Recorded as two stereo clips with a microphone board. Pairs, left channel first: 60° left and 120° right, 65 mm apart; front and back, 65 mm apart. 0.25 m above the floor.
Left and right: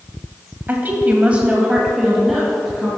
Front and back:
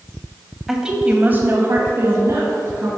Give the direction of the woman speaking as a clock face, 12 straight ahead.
3 o'clock.